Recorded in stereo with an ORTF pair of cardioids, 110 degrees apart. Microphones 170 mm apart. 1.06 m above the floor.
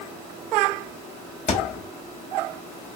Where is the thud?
45° left, 1.1 m.